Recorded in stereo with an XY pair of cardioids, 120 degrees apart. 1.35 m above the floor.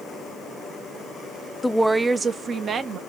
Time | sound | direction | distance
1.6 | a woman speaking | 10° left | 0.6 m